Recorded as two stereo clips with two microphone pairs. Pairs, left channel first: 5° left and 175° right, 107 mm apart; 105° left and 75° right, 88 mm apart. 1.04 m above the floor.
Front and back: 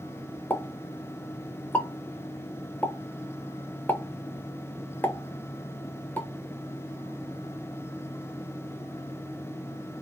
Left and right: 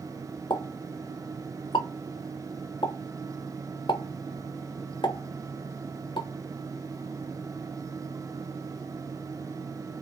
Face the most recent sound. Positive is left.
turn(degrees=80)